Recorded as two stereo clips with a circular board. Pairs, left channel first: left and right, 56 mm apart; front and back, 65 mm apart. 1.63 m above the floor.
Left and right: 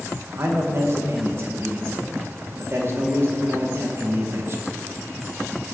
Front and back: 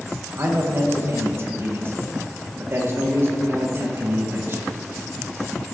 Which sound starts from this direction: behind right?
A man speaking, at 0.3 s.